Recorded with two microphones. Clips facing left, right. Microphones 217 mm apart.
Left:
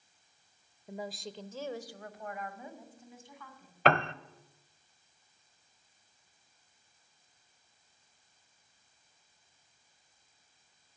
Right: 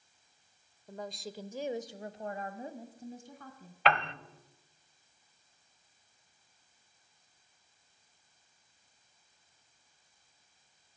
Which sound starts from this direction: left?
A piano, at 3.9 s.